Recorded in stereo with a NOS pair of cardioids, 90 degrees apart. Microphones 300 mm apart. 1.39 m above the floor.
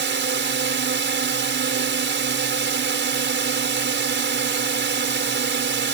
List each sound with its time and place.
0.0 s a drone: 40° right